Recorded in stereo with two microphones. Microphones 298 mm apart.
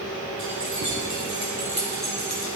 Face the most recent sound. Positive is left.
turn(degrees=-60)  # may be behind; listen again after turning